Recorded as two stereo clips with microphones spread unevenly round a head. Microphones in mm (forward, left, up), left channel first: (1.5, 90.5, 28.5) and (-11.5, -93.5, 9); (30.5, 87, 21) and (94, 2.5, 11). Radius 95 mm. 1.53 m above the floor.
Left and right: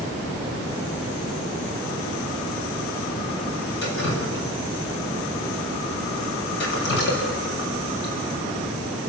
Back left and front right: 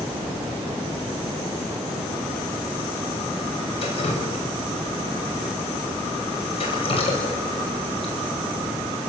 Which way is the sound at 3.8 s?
110° left.